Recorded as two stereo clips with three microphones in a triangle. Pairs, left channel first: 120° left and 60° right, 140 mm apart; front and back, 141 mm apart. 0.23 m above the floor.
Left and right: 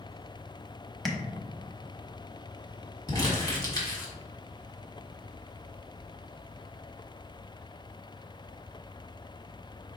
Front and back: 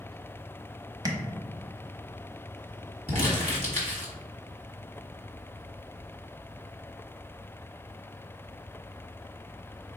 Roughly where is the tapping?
Behind right.